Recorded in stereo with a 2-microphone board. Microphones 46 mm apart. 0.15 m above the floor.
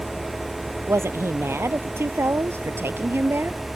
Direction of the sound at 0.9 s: 70° right (ahead or behind).